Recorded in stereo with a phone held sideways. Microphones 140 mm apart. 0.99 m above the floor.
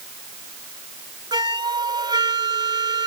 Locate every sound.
1.3 s a flute: 35° right (ahead or behind)